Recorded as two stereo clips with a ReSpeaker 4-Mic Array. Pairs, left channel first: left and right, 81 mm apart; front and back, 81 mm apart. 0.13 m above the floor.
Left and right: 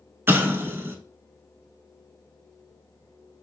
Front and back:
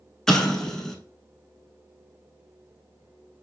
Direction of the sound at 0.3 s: 75° right.